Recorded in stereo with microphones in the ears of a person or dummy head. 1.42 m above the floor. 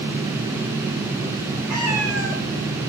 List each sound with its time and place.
1.7 s a cat meowing: 10° right (ahead or behind), 0.7 m